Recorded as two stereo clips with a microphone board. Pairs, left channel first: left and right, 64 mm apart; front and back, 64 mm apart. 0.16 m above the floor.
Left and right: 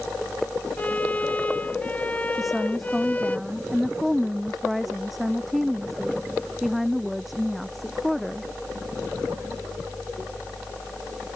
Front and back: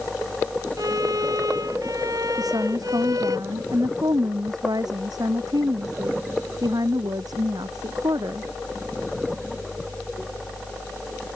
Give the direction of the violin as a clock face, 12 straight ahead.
7 o'clock.